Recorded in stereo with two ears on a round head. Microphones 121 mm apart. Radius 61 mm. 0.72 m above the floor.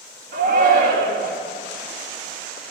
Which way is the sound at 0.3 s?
60° right (ahead or behind).